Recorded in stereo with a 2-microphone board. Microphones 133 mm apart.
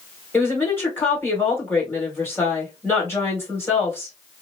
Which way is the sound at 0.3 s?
20° left (ahead or behind).